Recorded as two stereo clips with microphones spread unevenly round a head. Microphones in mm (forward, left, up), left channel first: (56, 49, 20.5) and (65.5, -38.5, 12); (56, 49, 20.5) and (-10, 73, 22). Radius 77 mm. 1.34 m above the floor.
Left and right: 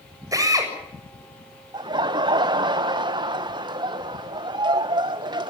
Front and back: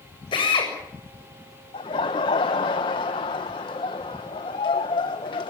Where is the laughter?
50° right, 1.1 m.